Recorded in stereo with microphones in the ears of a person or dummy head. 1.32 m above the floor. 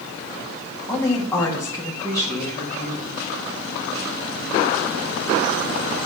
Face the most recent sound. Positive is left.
turn(degrees=10)  # may be behind; listen again after turning